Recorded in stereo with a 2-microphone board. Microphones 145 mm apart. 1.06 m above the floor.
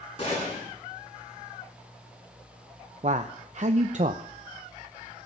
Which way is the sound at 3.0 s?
55° right (ahead or behind).